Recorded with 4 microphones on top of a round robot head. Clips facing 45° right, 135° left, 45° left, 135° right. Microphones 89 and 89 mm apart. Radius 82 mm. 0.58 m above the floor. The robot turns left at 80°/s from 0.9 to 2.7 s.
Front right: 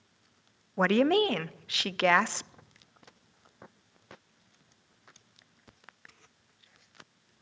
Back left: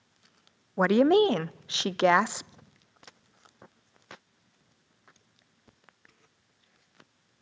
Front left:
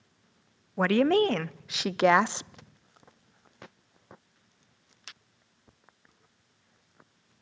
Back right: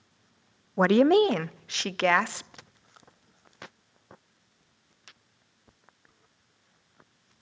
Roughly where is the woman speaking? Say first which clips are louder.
Back left 4 dB, back right 3 dB; behind.